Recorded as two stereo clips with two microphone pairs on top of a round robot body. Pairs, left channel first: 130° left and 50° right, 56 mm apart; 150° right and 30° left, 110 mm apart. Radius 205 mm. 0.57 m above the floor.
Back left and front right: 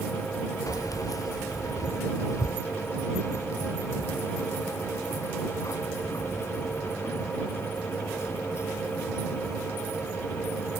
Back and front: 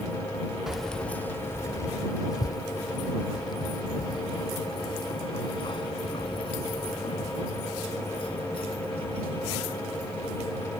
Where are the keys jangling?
115° left; by 10.6 s 170° left.